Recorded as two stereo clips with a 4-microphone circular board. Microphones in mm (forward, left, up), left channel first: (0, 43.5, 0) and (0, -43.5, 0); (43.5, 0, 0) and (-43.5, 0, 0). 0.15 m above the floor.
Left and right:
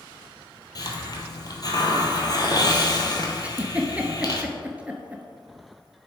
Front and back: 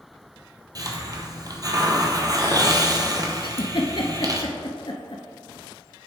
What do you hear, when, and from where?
0.8 s a hiss: 135° left, 0.8 m
3.4 s a giggle: 15° right, 0.7 m